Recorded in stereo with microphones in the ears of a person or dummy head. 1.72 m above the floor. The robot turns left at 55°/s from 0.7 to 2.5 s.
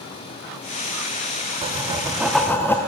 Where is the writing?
140° right, 0.6 m; by 2.8 s 170° left, 0.6 m.